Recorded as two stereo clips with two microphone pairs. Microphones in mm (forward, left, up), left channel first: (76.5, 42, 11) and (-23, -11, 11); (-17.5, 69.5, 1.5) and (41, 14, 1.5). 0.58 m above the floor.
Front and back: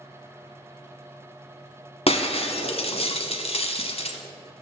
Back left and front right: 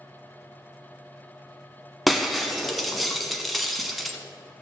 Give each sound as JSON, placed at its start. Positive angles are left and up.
{"t": 2.1, "sound": "breaking glass", "azimuth_deg": 45, "distance_m": 1.0}